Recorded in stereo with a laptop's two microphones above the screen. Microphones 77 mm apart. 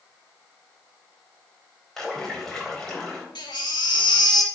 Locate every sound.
2.0 s a splash: 5° left (ahead or behind), 4 m
3.4 s a baby crying: 80° left, 1.7 m